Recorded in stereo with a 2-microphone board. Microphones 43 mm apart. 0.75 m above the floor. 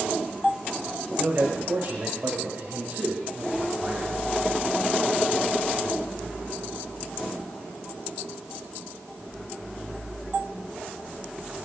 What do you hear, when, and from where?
1.1 s a man speaking: 70° right (ahead or behind), 2.5 m; by 4.1 s 35° right (ahead or behind), 6 m